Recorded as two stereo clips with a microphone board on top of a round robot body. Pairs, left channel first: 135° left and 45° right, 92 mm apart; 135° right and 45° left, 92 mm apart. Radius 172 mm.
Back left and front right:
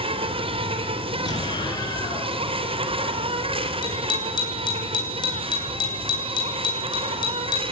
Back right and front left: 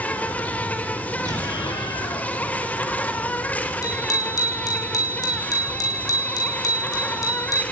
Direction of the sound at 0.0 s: 60° right.